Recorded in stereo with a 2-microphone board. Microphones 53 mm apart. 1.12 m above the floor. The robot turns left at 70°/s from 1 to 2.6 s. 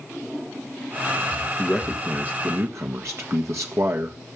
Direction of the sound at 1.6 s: 10° left.